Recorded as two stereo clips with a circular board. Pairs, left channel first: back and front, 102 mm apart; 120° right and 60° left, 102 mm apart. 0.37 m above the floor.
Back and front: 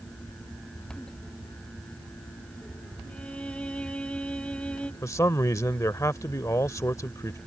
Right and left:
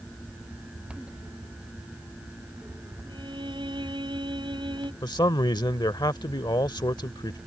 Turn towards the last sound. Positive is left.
turn(degrees=-135)